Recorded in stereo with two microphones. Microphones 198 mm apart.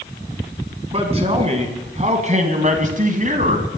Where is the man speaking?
30° right (ahead or behind), 2.5 m; by 3.7 s 40° right (ahead or behind), 2.0 m.